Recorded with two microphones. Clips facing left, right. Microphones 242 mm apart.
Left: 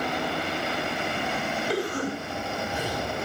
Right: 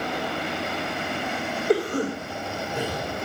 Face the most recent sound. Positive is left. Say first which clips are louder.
# right 7 dB
turn(degrees=-55)  # may be behind; listen again after turning